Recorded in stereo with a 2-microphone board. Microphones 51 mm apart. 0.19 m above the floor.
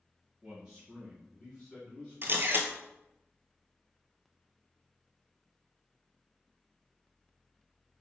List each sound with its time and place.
0.4 s a man speaking: 5° right (ahead or behind), 1.6 m; by 2.7 s 25° left (ahead or behind), 2 m
2.2 s a camera shutter: 50° right (ahead or behind), 0.8 m